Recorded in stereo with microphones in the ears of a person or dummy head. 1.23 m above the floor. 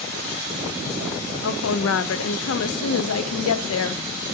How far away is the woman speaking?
About 0.5 m.